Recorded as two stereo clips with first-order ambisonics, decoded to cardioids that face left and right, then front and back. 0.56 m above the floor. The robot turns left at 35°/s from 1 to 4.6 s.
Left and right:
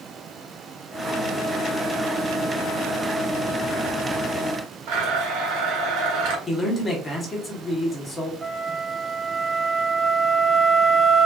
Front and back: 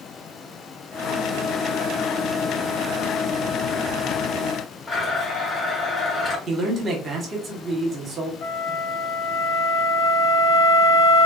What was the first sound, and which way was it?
A blender, 80° right.